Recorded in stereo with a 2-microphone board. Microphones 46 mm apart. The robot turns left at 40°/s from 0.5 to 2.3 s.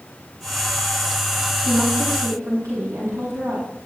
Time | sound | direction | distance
1.6 | a woman speaking | 45° right (ahead or behind) | 7 m